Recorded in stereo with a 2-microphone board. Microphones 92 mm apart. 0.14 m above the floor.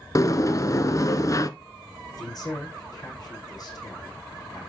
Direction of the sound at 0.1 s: 40° left (ahead or behind).